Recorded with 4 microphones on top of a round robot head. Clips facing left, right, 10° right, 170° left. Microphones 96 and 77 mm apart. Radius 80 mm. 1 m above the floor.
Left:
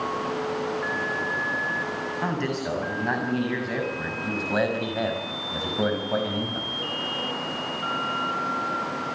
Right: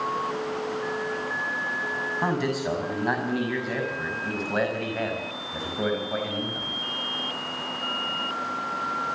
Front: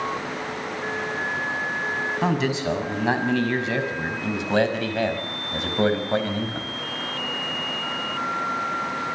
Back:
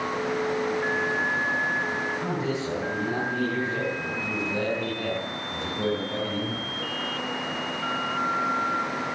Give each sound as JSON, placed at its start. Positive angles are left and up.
{"t": 2.2, "sound": "a man speaking", "azimuth_deg": -10, "distance_m": 7.0}